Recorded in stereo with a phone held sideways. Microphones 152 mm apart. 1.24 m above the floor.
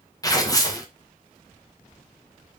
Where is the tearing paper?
25° left (ahead or behind), 1.5 m.